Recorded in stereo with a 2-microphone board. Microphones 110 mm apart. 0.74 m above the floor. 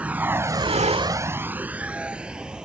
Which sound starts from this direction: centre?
A vehicle, at 0.0 s.